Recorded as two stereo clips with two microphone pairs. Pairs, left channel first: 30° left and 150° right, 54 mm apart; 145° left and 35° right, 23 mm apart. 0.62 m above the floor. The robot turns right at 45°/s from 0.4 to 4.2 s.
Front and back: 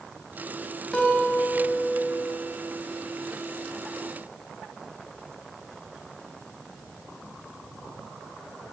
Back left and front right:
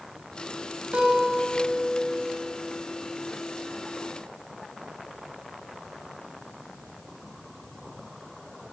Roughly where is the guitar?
Ahead right.